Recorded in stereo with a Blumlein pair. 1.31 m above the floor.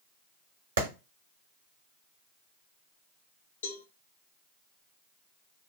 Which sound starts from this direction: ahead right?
A clap, at 0.8 s.